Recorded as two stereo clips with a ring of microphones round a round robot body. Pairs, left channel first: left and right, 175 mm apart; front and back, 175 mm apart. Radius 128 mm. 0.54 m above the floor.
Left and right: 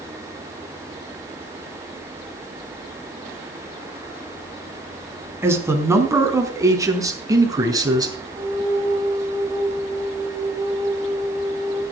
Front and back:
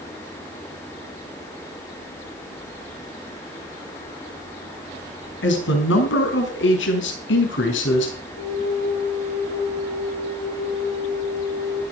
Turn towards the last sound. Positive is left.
turn(degrees=-30)